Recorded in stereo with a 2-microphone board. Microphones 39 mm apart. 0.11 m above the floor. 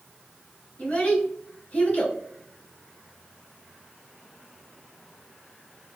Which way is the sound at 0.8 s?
35° left (ahead or behind).